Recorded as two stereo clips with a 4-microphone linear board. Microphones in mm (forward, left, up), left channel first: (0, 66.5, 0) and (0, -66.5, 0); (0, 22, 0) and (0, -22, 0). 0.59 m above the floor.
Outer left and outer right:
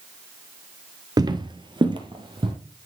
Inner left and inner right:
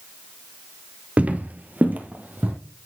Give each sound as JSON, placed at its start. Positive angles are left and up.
{"t": 1.2, "sound": "footsteps", "side_deg": -30, "distance_m": 0.6}